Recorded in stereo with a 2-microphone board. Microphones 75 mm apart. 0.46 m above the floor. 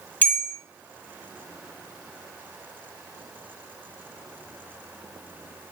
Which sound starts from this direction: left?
A bell, at 0.2 s.